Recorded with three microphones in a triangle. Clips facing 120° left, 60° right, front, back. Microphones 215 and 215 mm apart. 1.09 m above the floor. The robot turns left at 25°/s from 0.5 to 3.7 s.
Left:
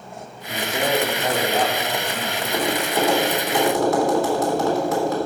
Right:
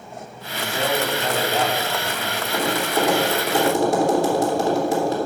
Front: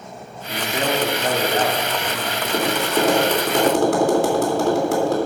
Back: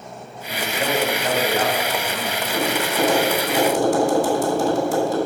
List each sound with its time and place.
0.5 s a man speaking: 60° left, 2.5 m; by 2.3 s 15° left, 2.5 m
2.4 s tapping: 30° left, 3 m; by 5.2 s straight ahead, 3 m